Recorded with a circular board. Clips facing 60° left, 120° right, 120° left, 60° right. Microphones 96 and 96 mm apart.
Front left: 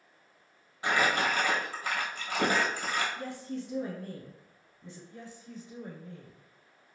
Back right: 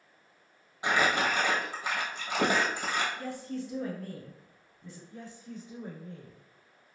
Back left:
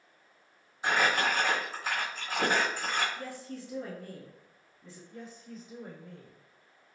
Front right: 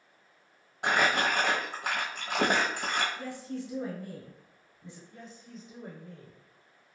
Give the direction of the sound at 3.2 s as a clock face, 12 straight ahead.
12 o'clock.